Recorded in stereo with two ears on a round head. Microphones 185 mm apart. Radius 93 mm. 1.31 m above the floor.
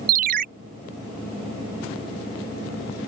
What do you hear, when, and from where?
0.1 s a ringtone: 45° right (ahead or behind)